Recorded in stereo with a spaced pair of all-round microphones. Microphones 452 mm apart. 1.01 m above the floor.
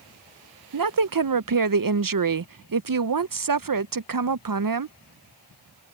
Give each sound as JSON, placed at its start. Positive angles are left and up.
{"t": 0.7, "sound": "a woman speaking", "side_deg": -50}